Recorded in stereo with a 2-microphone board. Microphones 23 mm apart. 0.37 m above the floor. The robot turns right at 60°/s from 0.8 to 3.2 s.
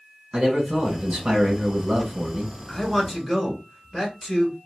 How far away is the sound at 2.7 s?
About 1.6 m.